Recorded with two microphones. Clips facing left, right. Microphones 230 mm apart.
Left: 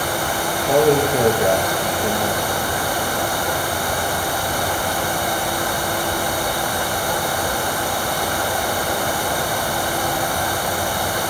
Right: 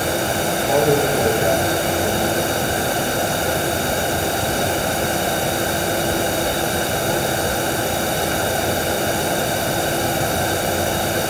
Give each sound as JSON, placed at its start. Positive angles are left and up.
{"t": 0.5, "sound": "a man speaking", "side_deg": 15, "distance_m": 5.5}